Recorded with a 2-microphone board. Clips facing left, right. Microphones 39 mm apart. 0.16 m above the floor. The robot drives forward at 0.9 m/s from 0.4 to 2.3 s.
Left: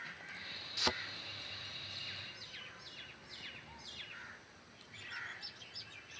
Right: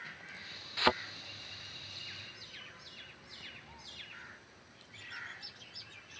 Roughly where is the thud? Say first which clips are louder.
Right 8 dB; right.